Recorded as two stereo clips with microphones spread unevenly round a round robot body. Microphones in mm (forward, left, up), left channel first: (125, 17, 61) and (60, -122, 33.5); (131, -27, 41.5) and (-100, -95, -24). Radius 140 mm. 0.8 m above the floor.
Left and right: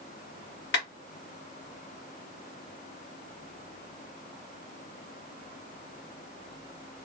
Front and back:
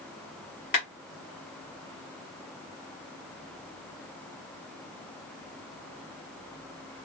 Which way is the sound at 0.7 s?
80° left.